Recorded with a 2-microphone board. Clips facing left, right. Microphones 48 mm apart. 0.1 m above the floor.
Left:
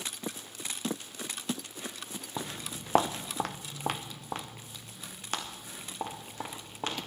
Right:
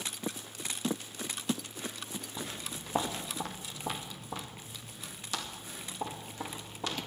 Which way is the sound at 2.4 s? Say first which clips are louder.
Left 5 dB; 80° left.